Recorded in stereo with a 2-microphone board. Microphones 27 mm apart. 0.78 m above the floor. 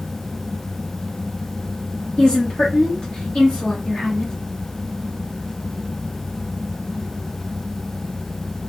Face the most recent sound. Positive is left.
turn(degrees=35)  # may be behind; listen again after turning